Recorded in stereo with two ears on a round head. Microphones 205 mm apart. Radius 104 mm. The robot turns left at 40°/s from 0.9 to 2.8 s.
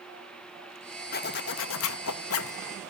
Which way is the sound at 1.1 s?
135° left.